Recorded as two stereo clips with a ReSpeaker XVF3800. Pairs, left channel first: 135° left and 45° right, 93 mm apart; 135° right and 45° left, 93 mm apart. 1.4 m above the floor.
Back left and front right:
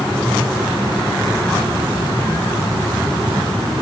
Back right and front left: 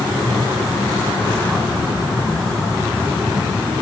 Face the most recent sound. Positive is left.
No sound to turn to.